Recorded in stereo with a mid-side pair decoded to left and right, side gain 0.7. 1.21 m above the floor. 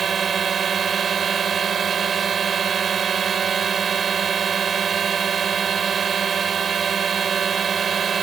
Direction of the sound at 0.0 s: 25° right.